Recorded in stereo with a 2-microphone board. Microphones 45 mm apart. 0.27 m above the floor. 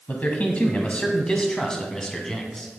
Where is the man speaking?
35° left (ahead or behind), 2 m; by 2.7 s 5° left (ahead or behind), 2.5 m.